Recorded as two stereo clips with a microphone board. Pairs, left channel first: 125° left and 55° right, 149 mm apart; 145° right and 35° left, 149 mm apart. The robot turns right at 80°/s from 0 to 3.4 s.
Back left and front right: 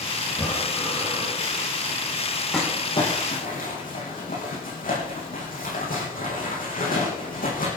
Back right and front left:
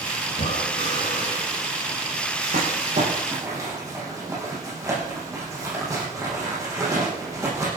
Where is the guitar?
I don't hear a guitar.